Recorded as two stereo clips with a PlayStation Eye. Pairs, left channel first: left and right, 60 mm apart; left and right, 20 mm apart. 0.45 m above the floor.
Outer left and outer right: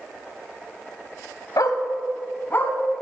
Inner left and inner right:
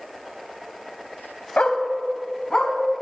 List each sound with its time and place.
1.6 s a dog barking: 85° left, 0.8 m; by 2.7 s 35° left (ahead or behind), 1.4 m